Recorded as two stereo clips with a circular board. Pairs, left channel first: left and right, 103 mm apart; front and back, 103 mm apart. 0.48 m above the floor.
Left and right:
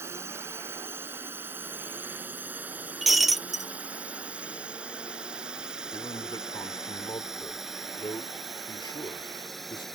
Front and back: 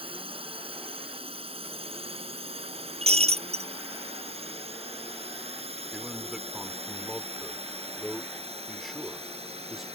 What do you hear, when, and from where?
0.0 s a drone: 155° right; by 10.0 s straight behind
3.0 s breaking glass: straight behind
5.9 s a man speaking: 95° left